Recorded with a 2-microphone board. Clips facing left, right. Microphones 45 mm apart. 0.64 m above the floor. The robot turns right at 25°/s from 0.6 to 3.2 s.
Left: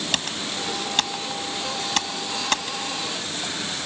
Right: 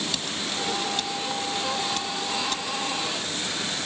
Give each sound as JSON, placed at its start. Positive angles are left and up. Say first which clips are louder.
{"t": 0.1, "sound": "typing on a keyboard", "louder": "left 2 dB", "side_deg": 60}